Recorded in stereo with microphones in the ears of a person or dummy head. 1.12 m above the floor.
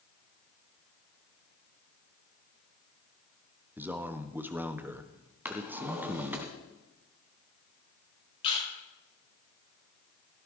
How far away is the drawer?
About 2.5 m.